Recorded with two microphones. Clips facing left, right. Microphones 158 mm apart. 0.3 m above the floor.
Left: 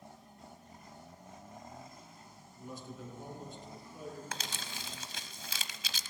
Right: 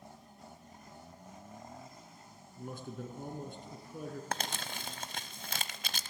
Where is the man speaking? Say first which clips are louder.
Right 3 dB; 60° right (ahead or behind), 3.5 m.